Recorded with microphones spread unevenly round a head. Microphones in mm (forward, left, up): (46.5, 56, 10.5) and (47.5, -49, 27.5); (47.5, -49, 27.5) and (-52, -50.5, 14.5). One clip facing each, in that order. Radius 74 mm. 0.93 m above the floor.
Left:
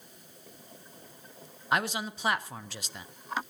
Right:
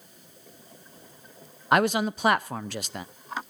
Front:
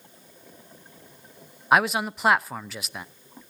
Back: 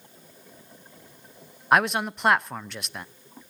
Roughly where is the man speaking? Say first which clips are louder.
Right 8 dB, even; right.